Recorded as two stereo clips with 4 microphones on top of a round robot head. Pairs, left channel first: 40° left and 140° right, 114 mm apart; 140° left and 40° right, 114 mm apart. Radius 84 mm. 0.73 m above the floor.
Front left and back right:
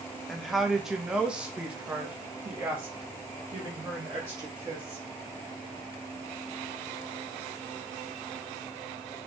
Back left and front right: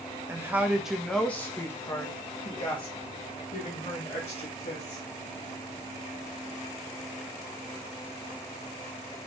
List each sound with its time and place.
0.3 s a woman speaking: 50° right, 1.1 m; by 5.0 s 150° left, 2.5 m